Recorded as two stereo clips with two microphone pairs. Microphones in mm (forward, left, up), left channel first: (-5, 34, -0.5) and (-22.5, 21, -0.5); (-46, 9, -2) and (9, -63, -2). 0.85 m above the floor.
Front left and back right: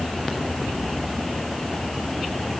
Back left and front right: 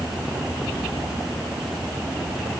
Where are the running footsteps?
I don't hear running footsteps.